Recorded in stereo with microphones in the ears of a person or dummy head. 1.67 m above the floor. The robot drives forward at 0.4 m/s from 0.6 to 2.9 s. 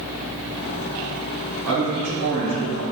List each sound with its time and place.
1.7 s a man speaking: 75° right (ahead or behind), 1.9 m; by 2.8 s 65° right (ahead or behind), 2 m